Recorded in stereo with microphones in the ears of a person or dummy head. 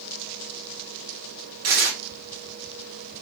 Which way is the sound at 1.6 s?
45° right (ahead or behind).